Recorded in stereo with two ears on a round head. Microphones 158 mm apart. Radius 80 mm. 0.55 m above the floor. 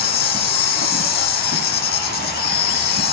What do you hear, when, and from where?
0.0 s an insect: 55° left (ahead or behind), 0.8 m